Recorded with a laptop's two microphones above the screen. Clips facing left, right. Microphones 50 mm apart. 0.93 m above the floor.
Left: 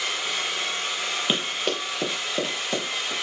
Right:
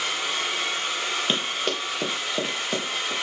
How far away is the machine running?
About 1.5 m.